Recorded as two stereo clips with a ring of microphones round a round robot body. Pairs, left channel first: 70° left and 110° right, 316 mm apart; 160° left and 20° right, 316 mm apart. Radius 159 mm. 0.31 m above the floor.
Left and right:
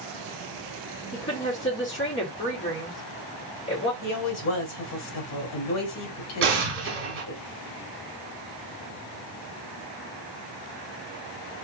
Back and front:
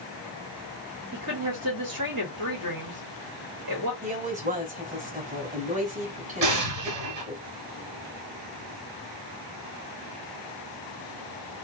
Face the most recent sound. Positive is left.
turn(degrees=-60)